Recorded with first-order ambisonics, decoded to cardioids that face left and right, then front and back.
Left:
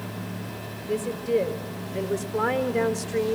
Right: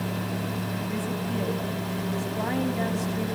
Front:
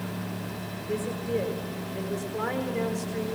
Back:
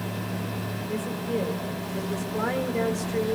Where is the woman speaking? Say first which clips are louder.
Left 4 dB, front 2 dB; 85° left, 5.5 m; by 3.4 s 110° left, 3.5 m.